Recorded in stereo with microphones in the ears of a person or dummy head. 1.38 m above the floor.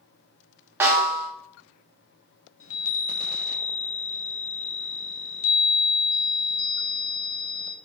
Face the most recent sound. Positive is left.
turn(degrees=70)  # may be behind; listen again after turning